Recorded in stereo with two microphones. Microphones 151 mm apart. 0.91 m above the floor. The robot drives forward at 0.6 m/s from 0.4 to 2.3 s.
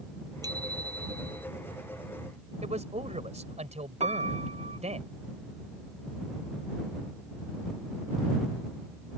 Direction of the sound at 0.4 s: 25° right (ahead or behind).